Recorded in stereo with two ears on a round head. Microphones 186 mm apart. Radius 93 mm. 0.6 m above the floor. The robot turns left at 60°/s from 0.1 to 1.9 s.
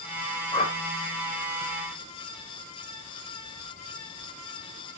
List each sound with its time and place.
0.5 s a whoosh: 25° left (ahead or behind), 2.5 m; by 0.8 s 40° left (ahead or behind), 2.5 m